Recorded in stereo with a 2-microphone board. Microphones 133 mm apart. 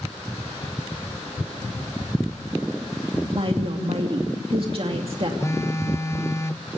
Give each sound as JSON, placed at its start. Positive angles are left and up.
{"t": 3.3, "sound": "a woman speaking", "side_deg": -50, "distance_m": 2.5}
{"t": 5.4, "sound": "a phone buzzing", "side_deg": 25, "distance_m": 0.6}